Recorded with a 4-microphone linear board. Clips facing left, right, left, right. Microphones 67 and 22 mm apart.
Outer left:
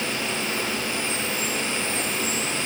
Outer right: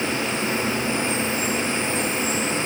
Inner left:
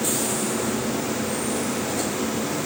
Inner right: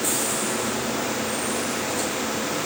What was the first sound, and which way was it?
Only background noise.